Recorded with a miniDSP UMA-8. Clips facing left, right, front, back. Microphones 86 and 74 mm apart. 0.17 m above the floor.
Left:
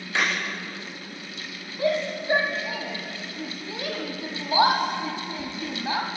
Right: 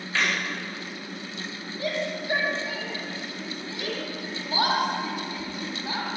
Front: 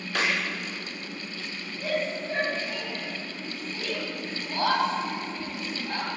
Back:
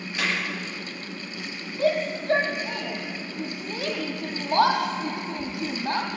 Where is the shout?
155° left, 6 m.